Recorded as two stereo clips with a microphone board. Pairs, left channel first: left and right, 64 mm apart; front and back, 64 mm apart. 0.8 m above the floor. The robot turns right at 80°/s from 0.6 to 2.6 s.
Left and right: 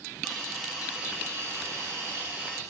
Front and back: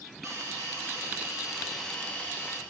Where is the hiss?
Straight behind, 1.3 m; by 2.6 s 20° right, 1.3 m.